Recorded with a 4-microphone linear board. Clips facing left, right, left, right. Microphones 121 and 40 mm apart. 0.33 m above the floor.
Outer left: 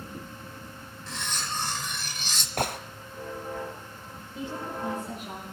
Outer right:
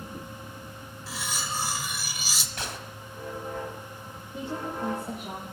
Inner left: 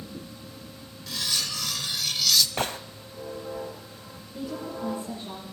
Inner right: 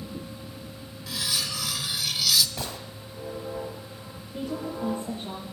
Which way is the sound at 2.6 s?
50° left (ahead or behind).